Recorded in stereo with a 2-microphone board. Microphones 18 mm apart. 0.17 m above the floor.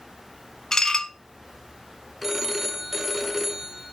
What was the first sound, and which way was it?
Dishes clattering, 35° left (ahead or behind).